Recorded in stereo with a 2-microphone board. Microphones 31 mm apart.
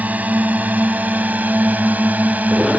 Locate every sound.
0.0 s a drone: 55° right (ahead or behind)